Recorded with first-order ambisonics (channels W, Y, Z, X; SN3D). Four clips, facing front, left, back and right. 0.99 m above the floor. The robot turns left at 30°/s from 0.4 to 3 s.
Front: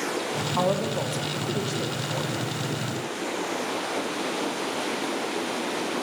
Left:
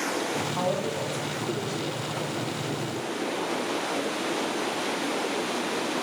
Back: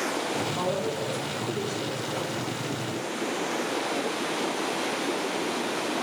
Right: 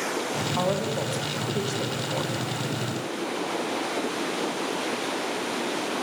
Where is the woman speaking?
20° right, 0.8 m; by 2.4 s 75° right, 0.8 m.